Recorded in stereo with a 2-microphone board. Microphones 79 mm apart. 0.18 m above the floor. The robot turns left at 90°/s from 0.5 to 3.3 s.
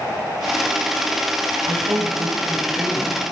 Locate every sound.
1.7 s a woman speaking: 70° right, 5 m; by 3.3 s 145° left, 5 m